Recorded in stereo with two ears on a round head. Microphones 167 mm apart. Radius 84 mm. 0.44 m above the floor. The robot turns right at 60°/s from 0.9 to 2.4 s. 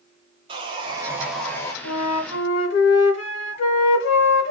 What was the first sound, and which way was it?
Sawing, 30° right.